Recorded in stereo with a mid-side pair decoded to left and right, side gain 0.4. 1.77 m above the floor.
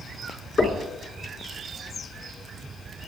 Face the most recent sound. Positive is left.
turn(degrees=35)